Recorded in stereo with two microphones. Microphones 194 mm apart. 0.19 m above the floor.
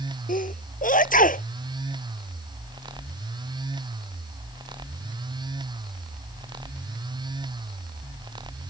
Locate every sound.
0.3 s a sneeze: 40° left (ahead or behind)